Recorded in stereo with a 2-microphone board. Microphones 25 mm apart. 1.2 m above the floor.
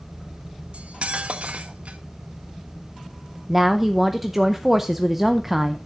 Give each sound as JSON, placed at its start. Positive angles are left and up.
{"t": 0.7, "sound": "cutlery clinking", "side_deg": -60, "distance_m": 0.8}
{"t": 3.5, "sound": "a woman speaking", "side_deg": -10, "distance_m": 0.6}